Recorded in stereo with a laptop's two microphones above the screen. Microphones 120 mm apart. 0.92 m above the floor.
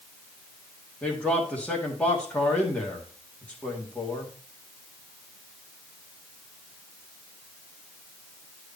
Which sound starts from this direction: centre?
A man speaking, at 1.0 s.